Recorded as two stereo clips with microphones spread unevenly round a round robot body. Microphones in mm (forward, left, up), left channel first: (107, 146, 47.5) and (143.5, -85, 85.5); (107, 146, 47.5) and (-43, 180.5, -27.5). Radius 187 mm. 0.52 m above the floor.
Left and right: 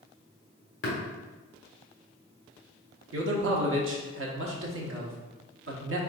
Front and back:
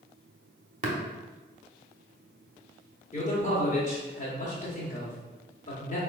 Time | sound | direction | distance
0.8 | tapping | 145° left | 1.5 m
3.1 | a man speaking | 85° right | 1.0 m